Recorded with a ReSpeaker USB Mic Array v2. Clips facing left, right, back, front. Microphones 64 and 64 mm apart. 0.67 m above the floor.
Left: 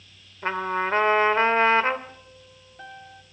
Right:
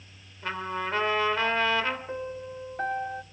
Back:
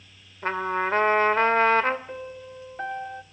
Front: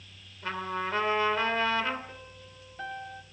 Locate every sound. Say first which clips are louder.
0.4 s a trumpet: left 6 dB, back 7 dB; 140° left, 2.5 m
2.1 s a piano: right 14 dB, back 11 dB; 125° right, 0.9 m